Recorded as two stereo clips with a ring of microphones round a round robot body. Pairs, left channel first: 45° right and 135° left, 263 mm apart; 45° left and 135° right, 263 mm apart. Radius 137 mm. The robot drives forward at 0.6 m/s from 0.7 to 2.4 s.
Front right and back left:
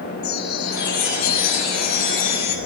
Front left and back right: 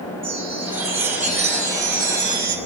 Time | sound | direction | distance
0.2 | a chime | 65° right | 6.5 m